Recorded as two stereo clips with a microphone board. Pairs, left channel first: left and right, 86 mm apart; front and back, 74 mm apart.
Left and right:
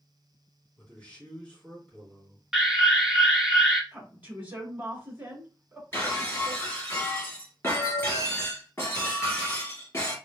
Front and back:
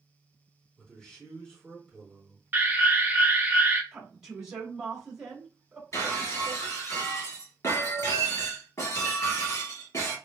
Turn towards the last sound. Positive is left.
turn(degrees=30)